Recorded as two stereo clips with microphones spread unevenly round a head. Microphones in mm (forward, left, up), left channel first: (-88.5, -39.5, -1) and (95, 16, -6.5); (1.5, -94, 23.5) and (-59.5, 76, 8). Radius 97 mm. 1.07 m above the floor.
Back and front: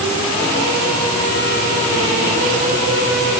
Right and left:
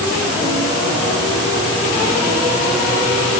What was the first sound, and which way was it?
Only background noise.